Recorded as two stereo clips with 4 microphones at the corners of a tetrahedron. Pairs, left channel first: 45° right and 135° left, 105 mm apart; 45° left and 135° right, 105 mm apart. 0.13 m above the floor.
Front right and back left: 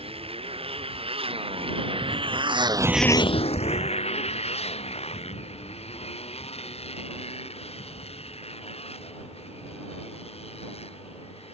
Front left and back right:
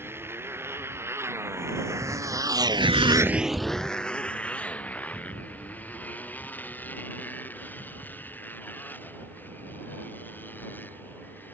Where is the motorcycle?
155° left; by 11.5 s 25° right.